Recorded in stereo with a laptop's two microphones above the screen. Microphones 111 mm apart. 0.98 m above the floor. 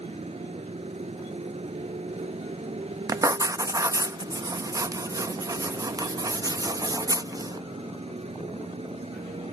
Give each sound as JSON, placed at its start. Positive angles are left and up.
{"t": 0.0, "sound": "a motorcycle", "side_deg": -70}
{"t": 3.1, "sound": "writing", "side_deg": -30}